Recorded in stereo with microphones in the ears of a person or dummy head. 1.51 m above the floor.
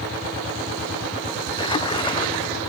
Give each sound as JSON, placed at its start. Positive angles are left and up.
{"t": 1.6, "sound": "a splash", "side_deg": 25}